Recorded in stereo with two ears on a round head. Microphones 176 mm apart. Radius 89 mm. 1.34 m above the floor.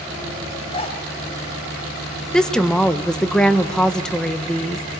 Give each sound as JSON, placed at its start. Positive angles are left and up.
{"t": 0.7, "sound": "a zipper", "side_deg": 30, "distance_m": 3.0}
{"t": 2.3, "sound": "a woman speaking", "side_deg": 5, "distance_m": 1.3}